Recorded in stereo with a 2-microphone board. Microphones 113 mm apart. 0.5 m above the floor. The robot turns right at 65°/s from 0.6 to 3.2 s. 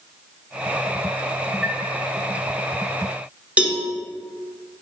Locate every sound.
1.6 s a chime: 10° right (ahead or behind), 0.8 m; by 1.8 s 5° right (ahead or behind), 0.8 m
3.6 s a cowbell: 10° right (ahead or behind), 0.5 m